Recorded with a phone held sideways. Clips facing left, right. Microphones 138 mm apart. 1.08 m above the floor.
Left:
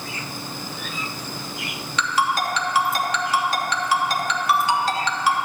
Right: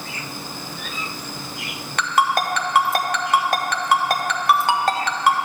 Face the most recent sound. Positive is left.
turn(degrees=-55)  # may be behind; listen again after turning